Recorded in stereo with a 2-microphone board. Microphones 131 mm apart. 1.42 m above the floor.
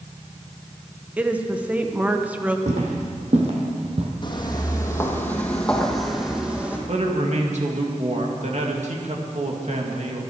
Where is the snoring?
I don't hear snoring.